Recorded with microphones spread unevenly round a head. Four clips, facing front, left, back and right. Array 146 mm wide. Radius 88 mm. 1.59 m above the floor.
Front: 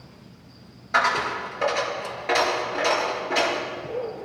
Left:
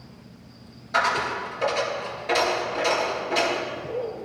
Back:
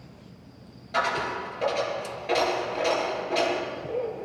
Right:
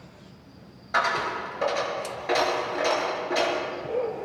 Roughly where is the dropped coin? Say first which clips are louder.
Left 2 dB, front 4 dB; ahead.